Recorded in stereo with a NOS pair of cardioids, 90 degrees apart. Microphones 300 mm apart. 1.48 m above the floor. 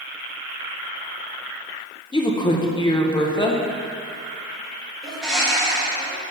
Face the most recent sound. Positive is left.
turn(degrees=0)